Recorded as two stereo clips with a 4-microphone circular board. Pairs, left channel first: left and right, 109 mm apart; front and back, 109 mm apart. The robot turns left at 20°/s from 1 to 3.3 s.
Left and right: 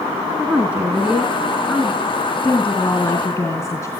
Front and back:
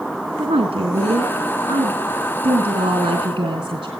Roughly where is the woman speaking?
Behind.